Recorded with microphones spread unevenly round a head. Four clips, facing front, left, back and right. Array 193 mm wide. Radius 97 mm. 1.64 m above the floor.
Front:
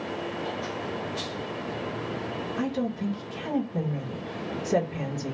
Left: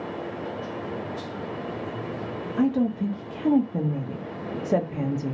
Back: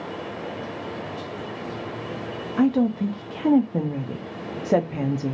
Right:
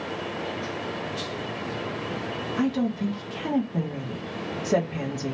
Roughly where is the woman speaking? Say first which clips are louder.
Left 3 dB, back 10 dB; behind.